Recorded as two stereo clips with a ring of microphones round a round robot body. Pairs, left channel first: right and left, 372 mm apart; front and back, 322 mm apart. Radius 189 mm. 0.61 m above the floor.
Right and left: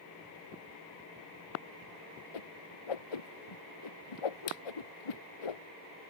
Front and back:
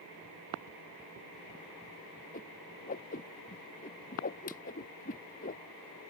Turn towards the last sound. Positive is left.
turn(degrees=-70)